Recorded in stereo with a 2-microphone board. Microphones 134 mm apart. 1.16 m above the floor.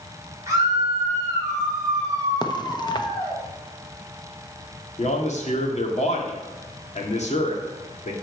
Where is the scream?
25° right (ahead or behind), 5 m; by 3.4 s 30° right (ahead or behind), 7 m.